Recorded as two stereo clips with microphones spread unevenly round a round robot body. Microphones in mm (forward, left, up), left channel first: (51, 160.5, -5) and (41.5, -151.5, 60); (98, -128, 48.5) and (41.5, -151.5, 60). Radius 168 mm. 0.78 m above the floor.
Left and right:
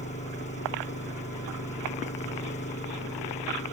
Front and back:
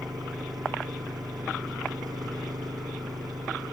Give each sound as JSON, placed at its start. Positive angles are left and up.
{"t": 0.0, "sound": "an engine running", "azimuth_deg": 160}